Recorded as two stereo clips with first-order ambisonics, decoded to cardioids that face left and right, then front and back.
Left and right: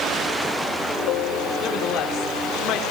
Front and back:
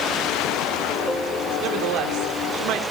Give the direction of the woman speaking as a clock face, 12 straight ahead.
7 o'clock.